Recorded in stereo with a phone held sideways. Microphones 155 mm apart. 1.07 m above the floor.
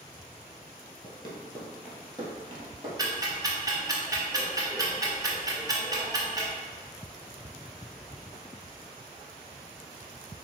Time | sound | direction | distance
1.0 | running footsteps | 35° left (ahead or behind) | 1.2 m
3.0 | ticking | 25° right (ahead or behind) | 0.7 m